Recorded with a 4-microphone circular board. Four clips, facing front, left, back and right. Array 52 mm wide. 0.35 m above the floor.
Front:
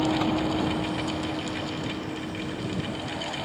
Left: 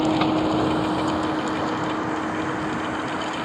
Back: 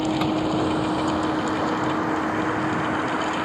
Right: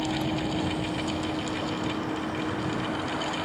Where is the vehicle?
95° left; by 3.5 s 160° left.